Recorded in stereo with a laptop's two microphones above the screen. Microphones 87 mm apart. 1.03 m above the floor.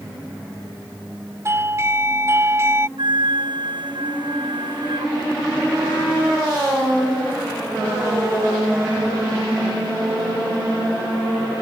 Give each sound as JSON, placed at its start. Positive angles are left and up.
{"t": 1.4, "sound": "a doorbell", "side_deg": -30}
{"t": 3.0, "sound": "a flute", "side_deg": -65}